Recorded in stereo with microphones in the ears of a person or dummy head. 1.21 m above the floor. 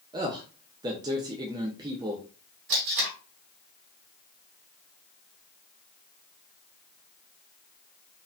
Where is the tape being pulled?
60° right (ahead or behind), 1.6 m.